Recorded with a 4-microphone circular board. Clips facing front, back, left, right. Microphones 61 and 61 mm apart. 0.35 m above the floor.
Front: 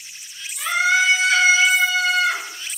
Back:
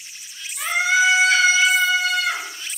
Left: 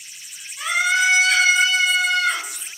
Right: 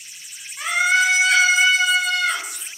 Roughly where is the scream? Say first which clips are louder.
Even, right 1 dB; behind right.